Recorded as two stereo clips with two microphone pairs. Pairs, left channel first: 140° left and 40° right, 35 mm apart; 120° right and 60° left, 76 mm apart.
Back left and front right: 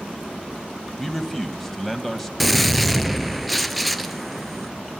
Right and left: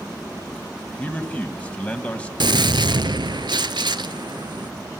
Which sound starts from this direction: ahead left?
A gunshot, at 2.4 s.